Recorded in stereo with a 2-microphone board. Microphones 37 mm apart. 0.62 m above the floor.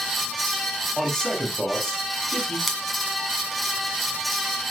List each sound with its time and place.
1.0 s a man speaking: 10° left (ahead or behind), 4 m
2.7 s scissors: centre (ahead or behind), 2.0 m